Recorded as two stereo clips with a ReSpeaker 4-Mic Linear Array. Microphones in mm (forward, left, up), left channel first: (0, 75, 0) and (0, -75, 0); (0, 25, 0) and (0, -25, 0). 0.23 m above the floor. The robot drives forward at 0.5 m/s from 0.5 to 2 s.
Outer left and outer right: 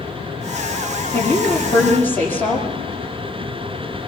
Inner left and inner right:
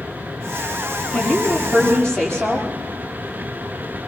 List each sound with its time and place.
1.1 s a woman speaking: 15° left (ahead or behind), 7.5 m